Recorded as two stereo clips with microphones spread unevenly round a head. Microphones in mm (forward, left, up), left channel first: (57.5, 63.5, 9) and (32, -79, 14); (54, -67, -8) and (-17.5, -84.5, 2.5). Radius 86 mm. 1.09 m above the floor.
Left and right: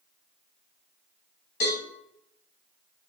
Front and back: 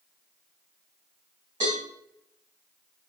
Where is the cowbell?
130° left, 2 m.